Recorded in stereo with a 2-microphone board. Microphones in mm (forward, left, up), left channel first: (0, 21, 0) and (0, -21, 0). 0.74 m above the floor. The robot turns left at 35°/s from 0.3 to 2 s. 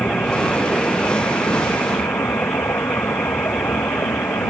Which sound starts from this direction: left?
A vehicle, at 0.0 s.